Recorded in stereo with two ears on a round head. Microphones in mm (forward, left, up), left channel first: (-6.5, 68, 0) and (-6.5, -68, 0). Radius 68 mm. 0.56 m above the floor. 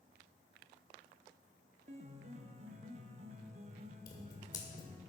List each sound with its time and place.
1.9 s a piano: 45° right (ahead or behind), 0.6 m
4.1 s scissors: 30° left (ahead or behind), 1.9 m